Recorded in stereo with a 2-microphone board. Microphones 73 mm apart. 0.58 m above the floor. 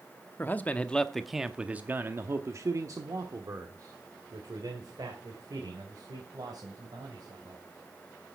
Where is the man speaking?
25° left (ahead or behind), 0.9 m; by 7.6 s 65° right (ahead or behind), 3.5 m.